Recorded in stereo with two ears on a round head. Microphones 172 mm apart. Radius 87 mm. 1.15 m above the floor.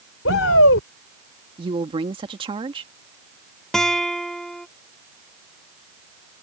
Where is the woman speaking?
25° right (ahead or behind).